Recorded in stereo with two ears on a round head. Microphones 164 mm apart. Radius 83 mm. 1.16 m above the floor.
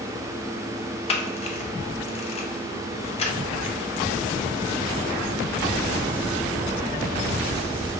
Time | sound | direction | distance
1.1 | a camera shutter | 35° left (ahead or behind) | 0.6 m